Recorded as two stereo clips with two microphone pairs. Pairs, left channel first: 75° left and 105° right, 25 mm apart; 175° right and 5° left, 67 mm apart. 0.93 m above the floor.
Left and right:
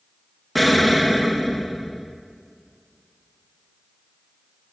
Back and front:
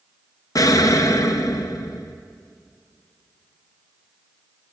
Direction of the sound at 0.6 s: 165° left.